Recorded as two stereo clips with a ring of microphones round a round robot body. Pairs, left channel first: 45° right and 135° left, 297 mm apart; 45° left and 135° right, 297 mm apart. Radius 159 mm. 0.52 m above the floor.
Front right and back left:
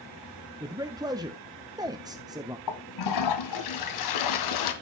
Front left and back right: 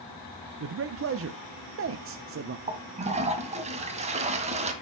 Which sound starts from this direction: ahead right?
A toilet flushing, at 2.7 s.